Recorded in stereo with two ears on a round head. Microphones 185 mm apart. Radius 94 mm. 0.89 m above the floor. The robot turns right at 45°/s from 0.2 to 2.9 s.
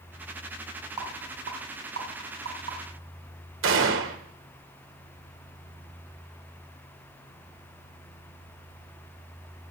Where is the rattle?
20° right (ahead or behind), 5.5 m; by 2.8 s 80° right, 5.5 m.